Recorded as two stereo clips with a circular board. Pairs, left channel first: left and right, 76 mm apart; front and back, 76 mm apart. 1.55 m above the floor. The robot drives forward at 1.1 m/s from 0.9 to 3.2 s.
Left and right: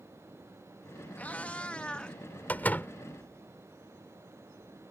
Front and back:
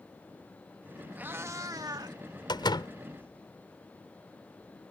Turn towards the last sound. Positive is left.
turn(degrees=25)